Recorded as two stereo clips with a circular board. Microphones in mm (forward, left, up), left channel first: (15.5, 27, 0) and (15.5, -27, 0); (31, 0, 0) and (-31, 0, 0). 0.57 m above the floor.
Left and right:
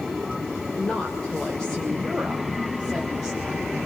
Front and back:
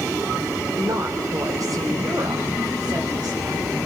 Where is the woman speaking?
155° left, 2.5 m; by 3.8 s 175° left, 4.5 m.